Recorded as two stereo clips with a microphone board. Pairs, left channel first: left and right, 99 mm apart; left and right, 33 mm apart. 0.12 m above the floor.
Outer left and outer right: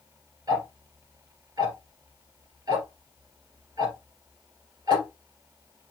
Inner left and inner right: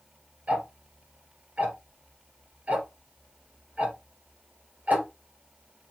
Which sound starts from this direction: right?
Ticking, at 0.5 s.